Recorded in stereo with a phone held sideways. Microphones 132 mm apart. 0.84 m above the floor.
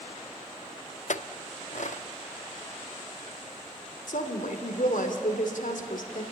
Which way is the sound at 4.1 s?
80° left.